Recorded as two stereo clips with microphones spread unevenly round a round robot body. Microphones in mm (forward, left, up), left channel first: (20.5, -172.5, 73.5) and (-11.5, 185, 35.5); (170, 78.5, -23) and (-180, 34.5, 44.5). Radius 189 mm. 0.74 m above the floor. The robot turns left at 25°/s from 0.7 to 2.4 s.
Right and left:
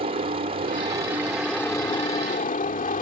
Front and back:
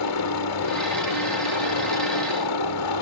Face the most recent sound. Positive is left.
turn(degrees=-15)